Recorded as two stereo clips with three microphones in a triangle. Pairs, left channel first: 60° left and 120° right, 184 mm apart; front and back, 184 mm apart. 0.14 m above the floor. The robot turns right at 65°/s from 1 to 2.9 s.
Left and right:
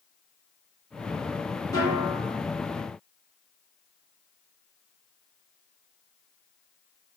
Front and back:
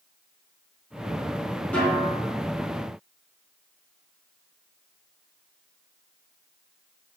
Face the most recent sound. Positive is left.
turn(degrees=145)